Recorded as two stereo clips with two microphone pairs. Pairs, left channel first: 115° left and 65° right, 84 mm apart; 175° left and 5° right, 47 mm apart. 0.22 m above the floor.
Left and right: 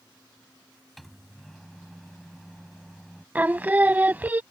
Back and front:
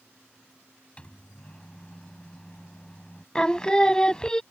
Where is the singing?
120° right.